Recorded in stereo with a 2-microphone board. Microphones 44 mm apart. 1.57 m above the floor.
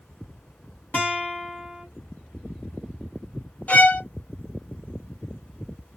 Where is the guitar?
40° left (ahead or behind), 1.9 m.